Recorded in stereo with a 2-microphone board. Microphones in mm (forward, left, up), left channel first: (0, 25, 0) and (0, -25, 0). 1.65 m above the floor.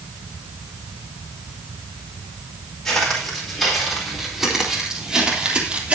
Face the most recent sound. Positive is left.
turn(degrees=-30)  # may be behind; listen again after turning